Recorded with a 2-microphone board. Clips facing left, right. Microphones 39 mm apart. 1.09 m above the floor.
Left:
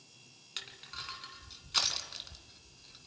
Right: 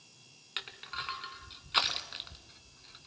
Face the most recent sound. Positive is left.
turn(degrees=-25)  # may be behind; listen again after turning